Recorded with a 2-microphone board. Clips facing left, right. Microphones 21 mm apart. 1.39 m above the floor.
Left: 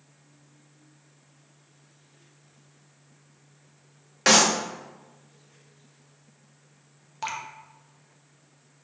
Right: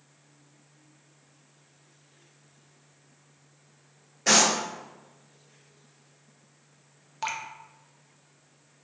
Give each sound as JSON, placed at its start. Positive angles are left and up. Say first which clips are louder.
{"t": 4.3, "sound": "a clap", "louder": "left 3 dB", "side_deg": 85, "distance_m": 1.1}
{"t": 7.2, "sound": "dripping", "louder": "even", "side_deg": -5, "distance_m": 0.6}